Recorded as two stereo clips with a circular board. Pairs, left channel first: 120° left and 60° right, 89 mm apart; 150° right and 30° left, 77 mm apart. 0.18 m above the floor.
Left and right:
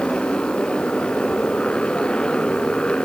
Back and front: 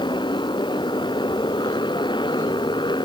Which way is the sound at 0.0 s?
160° right.